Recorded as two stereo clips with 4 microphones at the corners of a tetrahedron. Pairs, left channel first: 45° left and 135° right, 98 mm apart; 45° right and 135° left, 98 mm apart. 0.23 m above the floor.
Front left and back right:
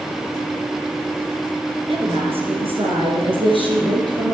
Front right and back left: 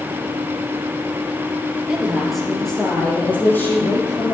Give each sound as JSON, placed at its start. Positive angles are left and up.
{"t": 1.9, "sound": "a woman speaking", "azimuth_deg": -145, "distance_m": 3.5}